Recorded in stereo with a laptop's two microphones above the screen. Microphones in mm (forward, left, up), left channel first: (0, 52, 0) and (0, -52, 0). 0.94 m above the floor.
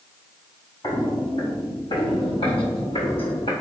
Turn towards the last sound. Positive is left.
turn(degrees=70)  # may be behind; listen again after turning